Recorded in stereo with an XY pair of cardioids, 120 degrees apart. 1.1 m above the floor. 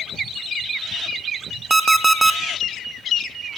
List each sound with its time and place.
1.7 s an alarm clock: 20° right, 0.7 m